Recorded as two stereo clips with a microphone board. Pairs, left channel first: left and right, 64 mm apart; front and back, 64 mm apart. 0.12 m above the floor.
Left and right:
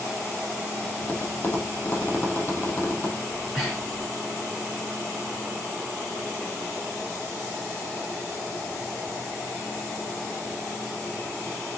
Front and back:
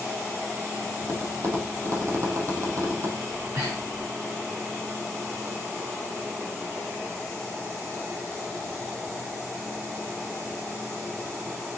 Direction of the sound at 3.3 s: Straight behind.